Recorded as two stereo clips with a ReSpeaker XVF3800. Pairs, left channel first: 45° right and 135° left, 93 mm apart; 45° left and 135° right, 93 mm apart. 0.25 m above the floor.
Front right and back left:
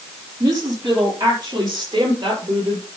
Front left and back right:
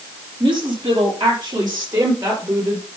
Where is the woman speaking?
175° right, 5 m; by 2.9 s 170° left, 4.5 m.